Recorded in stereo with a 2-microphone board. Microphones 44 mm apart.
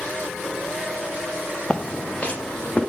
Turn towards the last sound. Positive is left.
turn(degrees=30)  # may be behind; listen again after turning